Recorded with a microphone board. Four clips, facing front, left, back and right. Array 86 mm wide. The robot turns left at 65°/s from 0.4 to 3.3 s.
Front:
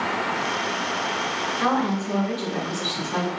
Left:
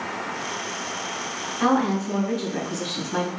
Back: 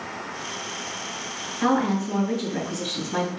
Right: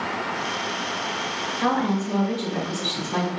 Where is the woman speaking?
40° left, 2.0 m; by 3.4 s 70° right, 2.0 m.